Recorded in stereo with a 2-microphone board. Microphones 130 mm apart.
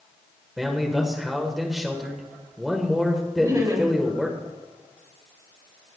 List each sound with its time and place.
0.6 s a man speaking: centre (ahead or behind), 1.3 m
3.4 s laughter: 30° right (ahead or behind), 1.9 m